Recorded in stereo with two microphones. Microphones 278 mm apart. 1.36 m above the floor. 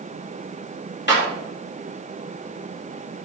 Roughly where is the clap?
Left.